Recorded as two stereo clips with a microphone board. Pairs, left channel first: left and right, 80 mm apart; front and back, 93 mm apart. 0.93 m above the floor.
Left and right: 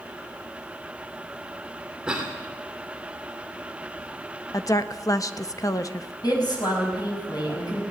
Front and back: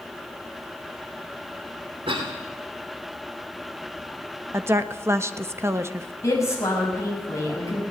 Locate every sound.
2.1 s a cough: 165° right, 2.5 m
4.5 s a woman speaking: 125° left, 1.1 m
6.2 s a woman speaking: 60° left, 6 m